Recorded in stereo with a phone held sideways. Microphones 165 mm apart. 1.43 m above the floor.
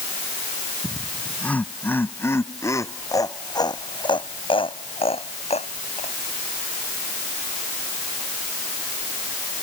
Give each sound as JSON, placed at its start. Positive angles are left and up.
{"t": 0.8, "sound": "laughter", "side_deg": 5}